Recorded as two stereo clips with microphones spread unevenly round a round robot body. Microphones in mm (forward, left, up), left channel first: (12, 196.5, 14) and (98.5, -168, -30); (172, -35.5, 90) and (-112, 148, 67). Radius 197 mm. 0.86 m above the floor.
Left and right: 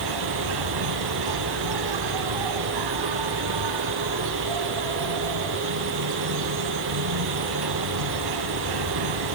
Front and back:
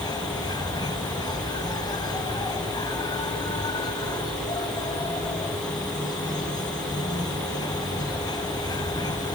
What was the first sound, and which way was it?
An insect, 110° right.